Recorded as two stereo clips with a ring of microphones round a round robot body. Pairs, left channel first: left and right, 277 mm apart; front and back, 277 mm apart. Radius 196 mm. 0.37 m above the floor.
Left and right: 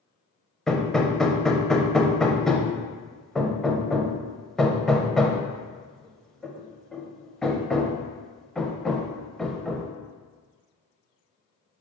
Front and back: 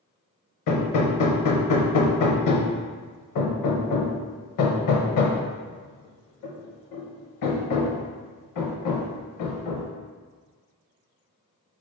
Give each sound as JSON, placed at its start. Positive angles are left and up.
{"t": 0.7, "sound": "hammering", "azimuth_deg": 0, "distance_m": 0.6}